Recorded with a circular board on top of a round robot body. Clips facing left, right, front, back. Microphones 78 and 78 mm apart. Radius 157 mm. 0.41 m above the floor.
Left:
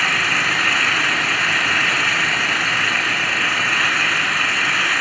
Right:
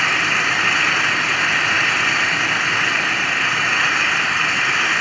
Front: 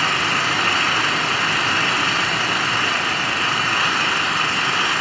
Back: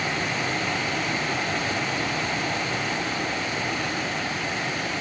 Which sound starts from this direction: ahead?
An engine running, at 0.0 s.